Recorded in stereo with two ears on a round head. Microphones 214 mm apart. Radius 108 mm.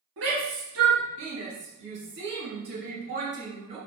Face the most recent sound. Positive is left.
turn(degrees=-30)  # may be behind; listen again after turning